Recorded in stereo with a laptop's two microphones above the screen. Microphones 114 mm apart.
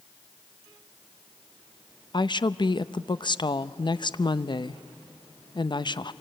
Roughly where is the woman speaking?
Left.